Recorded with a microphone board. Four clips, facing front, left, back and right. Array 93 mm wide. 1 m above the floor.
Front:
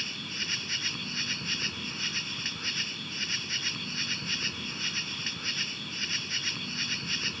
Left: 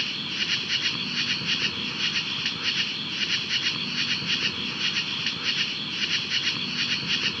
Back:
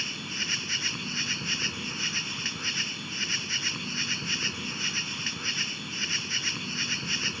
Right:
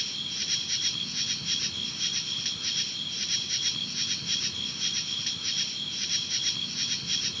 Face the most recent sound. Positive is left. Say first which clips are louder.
# left 8 dB, back 3 dB
turn(degrees=105)